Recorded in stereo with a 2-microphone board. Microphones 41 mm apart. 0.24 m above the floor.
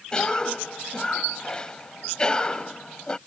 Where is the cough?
20° left (ahead or behind).